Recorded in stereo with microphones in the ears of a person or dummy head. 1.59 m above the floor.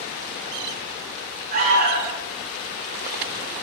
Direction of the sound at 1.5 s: 55° right (ahead or behind).